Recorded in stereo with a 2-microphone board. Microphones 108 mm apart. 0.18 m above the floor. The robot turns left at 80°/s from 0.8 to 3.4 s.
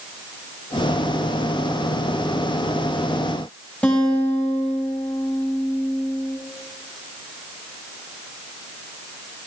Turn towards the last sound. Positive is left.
turn(degrees=10)  # may be behind; listen again after turning